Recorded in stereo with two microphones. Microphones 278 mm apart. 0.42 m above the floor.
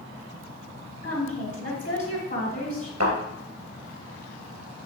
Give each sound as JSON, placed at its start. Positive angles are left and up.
{"t": 1.0, "sound": "a woman speaking", "side_deg": 40, "distance_m": 1.6}
{"t": 3.0, "sound": "a thud", "side_deg": -75, "distance_m": 3.0}